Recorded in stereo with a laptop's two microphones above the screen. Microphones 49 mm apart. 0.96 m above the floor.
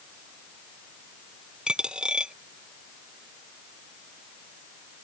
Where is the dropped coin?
15° right (ahead or behind).